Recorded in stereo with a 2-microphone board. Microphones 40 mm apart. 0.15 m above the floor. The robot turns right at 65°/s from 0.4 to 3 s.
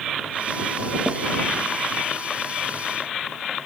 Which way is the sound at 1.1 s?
25° right (ahead or behind).